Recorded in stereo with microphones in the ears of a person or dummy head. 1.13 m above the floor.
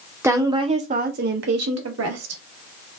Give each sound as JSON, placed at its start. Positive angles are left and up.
{"t": 0.2, "sound": "a woman speaking", "side_deg": -5, "distance_m": 0.7}